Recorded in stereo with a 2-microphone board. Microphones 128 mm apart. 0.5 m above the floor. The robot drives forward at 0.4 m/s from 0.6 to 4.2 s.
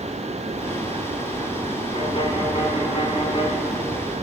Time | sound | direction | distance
1.9 | a violin | 40° left (ahead or behind) | 1.5 m